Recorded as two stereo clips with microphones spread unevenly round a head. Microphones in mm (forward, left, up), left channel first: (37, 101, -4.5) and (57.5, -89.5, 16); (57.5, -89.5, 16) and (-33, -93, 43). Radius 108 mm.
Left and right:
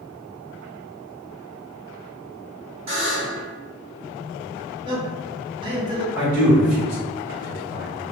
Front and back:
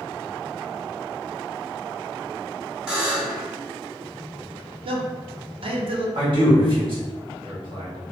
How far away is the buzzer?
About 1.8 m.